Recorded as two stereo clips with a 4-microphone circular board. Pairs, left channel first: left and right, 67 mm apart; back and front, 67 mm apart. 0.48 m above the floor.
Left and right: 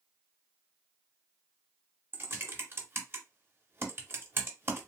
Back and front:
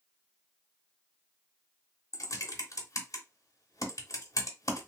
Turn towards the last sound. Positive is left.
turn(degrees=-145)